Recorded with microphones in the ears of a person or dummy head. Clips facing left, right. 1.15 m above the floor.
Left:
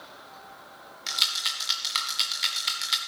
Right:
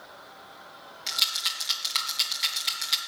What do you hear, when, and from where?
1.1 s a rattle: 5° left (ahead or behind), 1.8 m